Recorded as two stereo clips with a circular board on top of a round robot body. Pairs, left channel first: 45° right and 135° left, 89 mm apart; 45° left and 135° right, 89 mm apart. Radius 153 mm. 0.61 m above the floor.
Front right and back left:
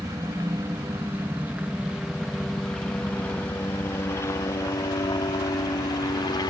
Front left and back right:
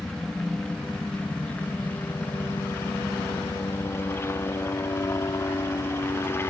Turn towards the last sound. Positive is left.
turn(degrees=-15)